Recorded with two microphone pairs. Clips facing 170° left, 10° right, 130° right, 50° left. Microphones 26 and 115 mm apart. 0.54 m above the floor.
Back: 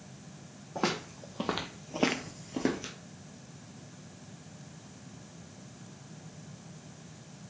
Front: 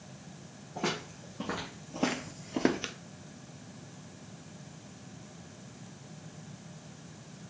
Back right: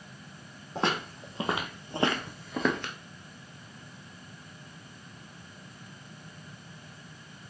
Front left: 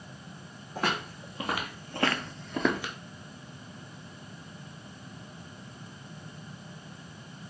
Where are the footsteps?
170° left, 1.3 m; by 2.9 s 30° right, 0.6 m.